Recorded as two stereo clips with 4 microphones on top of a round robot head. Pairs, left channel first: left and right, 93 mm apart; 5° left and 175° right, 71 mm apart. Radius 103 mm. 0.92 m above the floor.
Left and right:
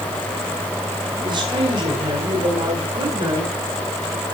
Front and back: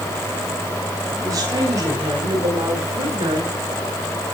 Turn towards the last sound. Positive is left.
turn(degrees=-135)